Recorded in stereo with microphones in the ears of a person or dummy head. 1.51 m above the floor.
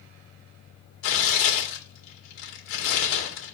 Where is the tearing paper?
75° left (ahead or behind), 2.5 m.